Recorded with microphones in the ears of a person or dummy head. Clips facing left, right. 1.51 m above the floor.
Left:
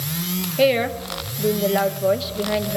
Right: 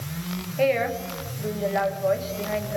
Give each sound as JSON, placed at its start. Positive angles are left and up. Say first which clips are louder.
{"t": 0.6, "sound": "a woman speaking", "louder": "left 4 dB", "side_deg": 45, "distance_m": 1.5}